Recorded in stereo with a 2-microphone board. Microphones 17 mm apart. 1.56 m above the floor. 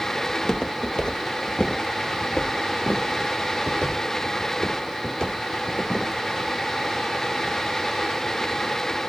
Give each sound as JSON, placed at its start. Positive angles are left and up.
{"t": 0.3, "sound": "footsteps", "side_deg": 40, "distance_m": 2.0}